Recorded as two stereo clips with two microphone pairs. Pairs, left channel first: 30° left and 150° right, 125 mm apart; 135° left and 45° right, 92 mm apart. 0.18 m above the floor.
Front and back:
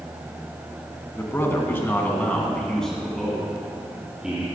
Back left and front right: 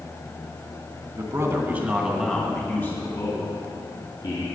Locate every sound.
1.1 s a man speaking: 25° right, 1.9 m; by 4.5 s 130° left, 3 m